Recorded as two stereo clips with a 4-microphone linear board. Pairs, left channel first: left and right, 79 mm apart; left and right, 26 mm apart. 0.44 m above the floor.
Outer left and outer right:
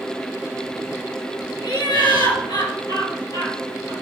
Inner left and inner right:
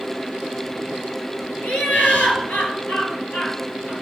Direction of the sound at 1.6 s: 70° left (ahead or behind).